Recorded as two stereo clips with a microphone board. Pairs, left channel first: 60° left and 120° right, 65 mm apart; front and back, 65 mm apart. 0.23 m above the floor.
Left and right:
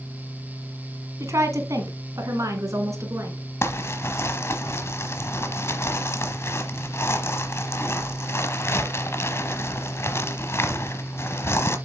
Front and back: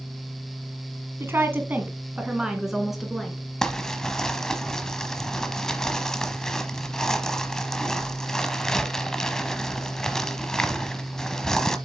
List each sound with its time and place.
1.2 s a woman speaking: 140° right, 1.7 m; by 3.4 s 85° right, 2.5 m
3.6 s crumpling: 80° left, 0.9 m